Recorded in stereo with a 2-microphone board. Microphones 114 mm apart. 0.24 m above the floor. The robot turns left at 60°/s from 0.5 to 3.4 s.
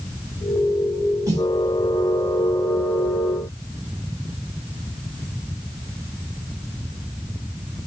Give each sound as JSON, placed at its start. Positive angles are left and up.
{"t": 1.3, "sound": "a snare drum", "side_deg": -30, "distance_m": 2.0}